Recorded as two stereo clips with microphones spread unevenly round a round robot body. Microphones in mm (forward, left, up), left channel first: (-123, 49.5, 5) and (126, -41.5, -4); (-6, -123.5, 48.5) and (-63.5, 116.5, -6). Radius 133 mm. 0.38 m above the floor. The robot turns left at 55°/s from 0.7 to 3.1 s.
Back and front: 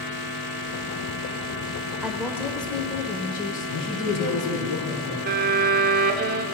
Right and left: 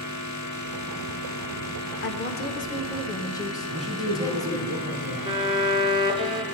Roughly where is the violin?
Ahead left.